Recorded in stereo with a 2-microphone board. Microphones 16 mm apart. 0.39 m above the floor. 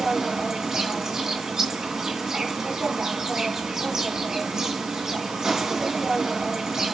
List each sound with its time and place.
0.0 s an insect: 45° right (ahead or behind), 2.5 m